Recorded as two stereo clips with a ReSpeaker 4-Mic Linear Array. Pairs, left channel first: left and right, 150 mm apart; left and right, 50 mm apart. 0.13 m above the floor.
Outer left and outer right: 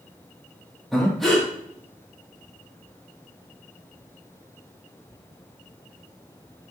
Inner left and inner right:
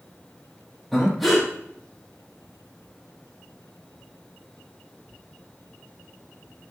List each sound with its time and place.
0.9 s breathing: centre (ahead or behind), 4 m